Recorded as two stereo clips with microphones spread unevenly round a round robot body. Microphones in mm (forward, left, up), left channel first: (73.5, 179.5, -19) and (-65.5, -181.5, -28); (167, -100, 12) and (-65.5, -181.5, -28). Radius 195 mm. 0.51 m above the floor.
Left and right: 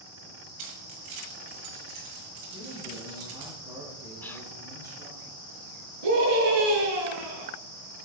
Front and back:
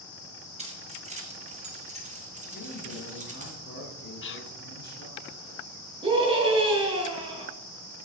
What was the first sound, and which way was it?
Keys jangling, 95° right.